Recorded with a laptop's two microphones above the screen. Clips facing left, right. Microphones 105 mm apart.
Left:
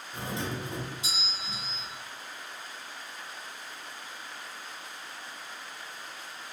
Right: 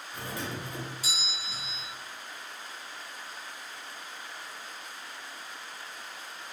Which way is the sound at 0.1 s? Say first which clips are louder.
Left 3 dB; 25° left (ahead or behind).